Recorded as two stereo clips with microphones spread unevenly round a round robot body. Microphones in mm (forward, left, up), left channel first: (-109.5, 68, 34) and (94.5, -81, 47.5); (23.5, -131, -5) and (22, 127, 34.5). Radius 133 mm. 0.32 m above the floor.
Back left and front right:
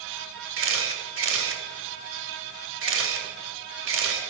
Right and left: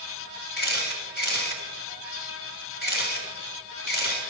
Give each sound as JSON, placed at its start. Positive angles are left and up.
{"t": 0.6, "sound": "a camera shutter", "azimuth_deg": -55, "distance_m": 1.8}